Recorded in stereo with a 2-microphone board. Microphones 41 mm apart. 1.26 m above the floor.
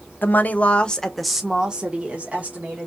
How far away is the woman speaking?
About 0.8 m.